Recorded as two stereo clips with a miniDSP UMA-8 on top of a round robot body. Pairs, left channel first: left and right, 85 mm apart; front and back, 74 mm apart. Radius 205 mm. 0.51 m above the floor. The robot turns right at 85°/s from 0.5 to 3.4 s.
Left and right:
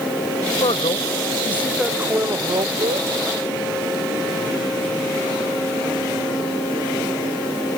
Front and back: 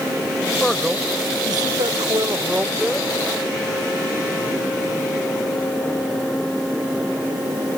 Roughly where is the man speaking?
Left.